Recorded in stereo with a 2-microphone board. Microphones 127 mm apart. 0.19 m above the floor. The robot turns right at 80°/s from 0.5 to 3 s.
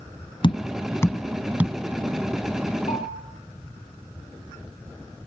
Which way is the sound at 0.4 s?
40° left (ahead or behind).